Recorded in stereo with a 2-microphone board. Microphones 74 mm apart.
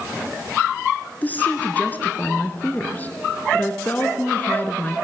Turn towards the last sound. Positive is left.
turn(degrees=25)  # may be behind; listen again after turning